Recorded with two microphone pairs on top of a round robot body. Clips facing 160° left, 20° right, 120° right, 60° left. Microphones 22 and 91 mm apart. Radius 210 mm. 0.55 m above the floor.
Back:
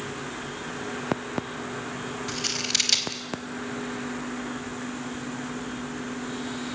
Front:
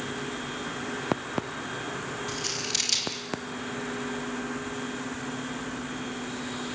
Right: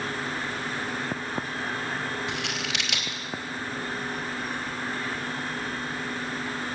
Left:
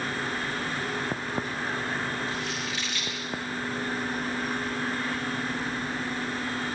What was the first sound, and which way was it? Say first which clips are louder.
Scissors: back 4 dB, even; 135° right.